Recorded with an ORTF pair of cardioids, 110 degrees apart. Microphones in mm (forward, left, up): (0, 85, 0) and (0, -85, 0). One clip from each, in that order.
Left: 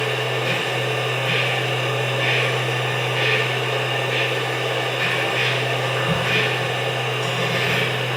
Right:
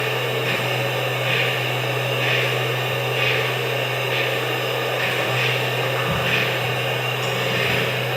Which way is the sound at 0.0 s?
5° right.